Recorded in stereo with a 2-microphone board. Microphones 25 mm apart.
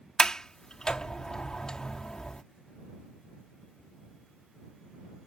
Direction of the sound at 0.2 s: 25° left (ahead or behind).